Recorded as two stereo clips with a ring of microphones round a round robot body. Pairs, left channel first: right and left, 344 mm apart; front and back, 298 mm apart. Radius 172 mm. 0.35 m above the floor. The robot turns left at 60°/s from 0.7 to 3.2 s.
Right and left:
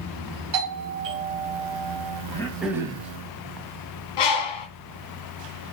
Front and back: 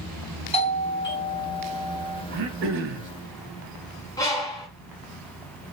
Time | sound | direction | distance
0.5 | a doorbell | 65° left | 3 m
2.3 | throat clearing | 160° right | 1.8 m
4.2 | a bird | 80° right | 1.7 m